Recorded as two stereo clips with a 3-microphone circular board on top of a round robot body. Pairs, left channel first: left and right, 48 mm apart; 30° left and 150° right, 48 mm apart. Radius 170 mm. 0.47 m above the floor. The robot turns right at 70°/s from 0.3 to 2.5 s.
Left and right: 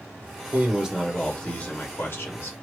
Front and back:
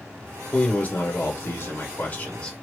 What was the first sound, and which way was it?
A man speaking, 30° right.